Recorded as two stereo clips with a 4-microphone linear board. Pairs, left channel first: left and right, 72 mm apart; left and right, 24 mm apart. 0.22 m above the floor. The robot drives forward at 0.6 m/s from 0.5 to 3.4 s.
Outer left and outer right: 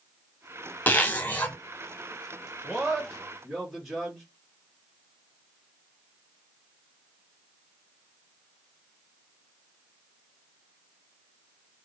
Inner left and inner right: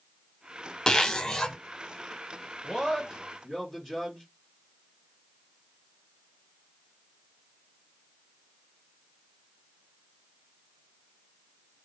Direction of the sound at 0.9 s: 25° left (ahead or behind).